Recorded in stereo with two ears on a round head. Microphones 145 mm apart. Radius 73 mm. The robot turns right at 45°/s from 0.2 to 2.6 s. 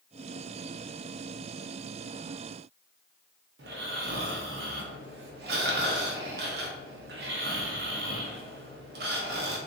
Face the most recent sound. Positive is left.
turn(degrees=-70)  # may be behind; listen again after turning